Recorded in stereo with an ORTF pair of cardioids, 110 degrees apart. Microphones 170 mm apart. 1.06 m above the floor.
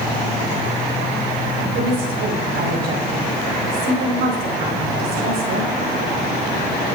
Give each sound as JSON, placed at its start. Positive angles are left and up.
{"t": 1.7, "sound": "a woman speaking", "azimuth_deg": -65, "distance_m": 4.0}